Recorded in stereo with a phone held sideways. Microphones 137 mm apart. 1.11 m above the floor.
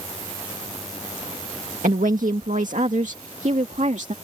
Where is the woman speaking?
70° right (ahead or behind); by 4.1 s 60° right (ahead or behind).